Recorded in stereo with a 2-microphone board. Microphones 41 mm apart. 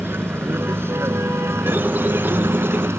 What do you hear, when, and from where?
0.0 s a vehicle: 60° right (ahead or behind); by 3.0 s 75° right (ahead or behind)
1.7 s a squeak: 50° right (ahead or behind)